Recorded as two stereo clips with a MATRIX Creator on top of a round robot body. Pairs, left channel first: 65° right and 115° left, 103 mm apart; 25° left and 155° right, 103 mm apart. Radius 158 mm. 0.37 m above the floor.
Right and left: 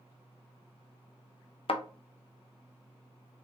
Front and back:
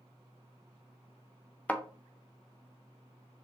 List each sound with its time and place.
1.7 s a thud: 50° right, 0.6 m